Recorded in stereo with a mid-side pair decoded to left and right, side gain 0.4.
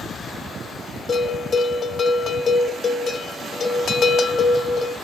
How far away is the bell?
About 1.2 m.